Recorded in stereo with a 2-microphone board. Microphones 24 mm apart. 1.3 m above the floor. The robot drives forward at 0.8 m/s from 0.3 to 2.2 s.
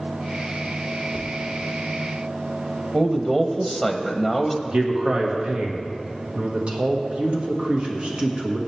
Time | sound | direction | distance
1.1 | tapping | 30° left (ahead or behind) | 2.5 m
2.9 | a man speaking | 10° right (ahead or behind) | 0.7 m
4.7 | a man speaking | 45° right (ahead or behind) | 1.6 m